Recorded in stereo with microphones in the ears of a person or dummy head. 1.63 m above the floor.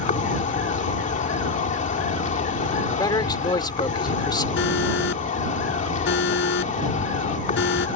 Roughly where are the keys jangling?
No keys jangling in this recording.